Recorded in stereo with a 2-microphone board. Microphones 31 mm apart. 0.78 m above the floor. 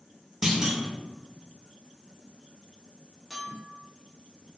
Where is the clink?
Centre (ahead or behind), 0.8 m.